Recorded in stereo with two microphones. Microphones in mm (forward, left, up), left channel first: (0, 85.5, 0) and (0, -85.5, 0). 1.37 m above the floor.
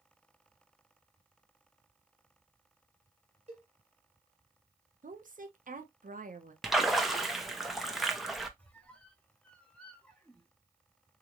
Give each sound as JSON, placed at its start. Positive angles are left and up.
{"t": 3.5, "sound": "a cowbell", "side_deg": -40, "distance_m": 1.5}
{"t": 5.0, "sound": "a woman speaking", "side_deg": -50, "distance_m": 0.9}
{"t": 6.6, "sound": "a splash", "side_deg": 0, "distance_m": 0.7}
{"t": 8.6, "sound": "a squeak", "side_deg": 5, "distance_m": 1.0}